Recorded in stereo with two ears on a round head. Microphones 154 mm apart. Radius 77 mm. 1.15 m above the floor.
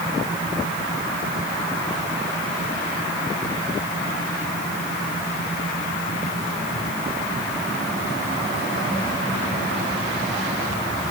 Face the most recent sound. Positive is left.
No sound to turn to.